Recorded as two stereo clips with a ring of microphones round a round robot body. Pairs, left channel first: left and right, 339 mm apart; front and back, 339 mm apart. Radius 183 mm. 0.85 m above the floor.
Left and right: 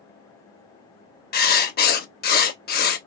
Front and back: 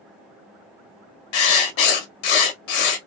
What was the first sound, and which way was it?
Writing, 25° left.